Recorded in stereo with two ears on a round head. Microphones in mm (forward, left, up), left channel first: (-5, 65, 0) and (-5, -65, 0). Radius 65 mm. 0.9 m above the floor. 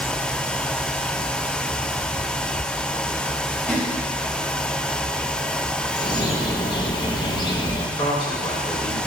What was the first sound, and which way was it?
A splash, 10° left (ahead or behind).